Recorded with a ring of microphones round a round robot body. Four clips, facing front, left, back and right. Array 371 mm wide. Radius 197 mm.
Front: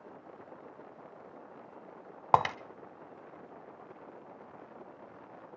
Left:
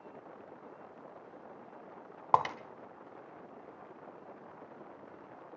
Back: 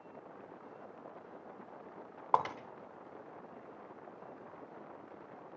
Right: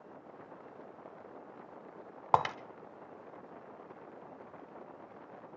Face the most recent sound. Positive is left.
turn(degrees=-5)